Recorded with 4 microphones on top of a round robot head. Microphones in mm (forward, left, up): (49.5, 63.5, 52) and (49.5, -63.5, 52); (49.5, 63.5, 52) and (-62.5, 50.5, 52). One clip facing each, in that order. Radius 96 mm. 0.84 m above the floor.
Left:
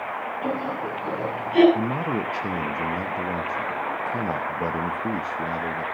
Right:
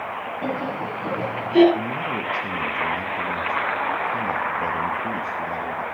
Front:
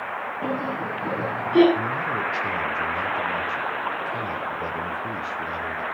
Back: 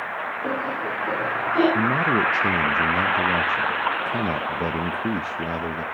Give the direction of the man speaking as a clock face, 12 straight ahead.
7 o'clock.